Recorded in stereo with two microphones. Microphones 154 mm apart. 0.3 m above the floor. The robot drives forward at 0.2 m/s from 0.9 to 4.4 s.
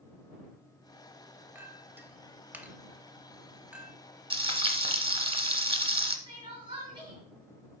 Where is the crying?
30° right (ahead or behind), 3 m.